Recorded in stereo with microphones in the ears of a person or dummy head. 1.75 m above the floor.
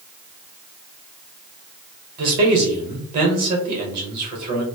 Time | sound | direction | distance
2.2 | a man speaking | 50° right (ahead or behind) | 1.0 m